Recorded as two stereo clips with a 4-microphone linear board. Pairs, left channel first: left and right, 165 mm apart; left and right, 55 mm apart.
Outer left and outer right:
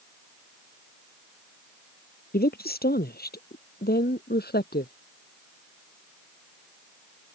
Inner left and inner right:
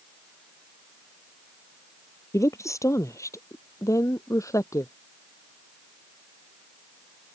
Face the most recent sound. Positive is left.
turn(degrees=75)  # may be behind; listen again after turning